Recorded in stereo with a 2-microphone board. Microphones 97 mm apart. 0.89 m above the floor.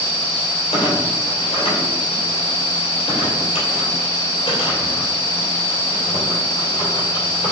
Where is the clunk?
75° left (ahead or behind), 2.5 m.